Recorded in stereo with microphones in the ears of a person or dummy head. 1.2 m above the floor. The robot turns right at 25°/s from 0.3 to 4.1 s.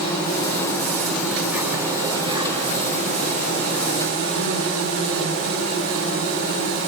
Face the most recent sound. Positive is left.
turn(degrees=-110)